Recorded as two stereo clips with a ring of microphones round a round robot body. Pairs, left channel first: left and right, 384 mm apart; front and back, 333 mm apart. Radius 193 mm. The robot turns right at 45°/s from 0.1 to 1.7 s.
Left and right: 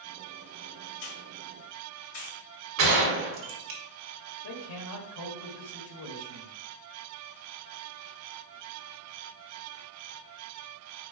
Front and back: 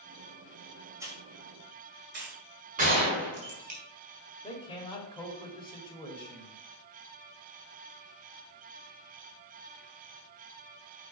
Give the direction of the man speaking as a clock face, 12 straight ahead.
10 o'clock.